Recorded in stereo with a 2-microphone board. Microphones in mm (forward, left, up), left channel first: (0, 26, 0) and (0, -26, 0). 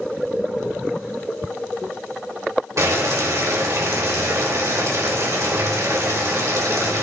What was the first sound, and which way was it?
Boiling, 75° right (ahead or behind).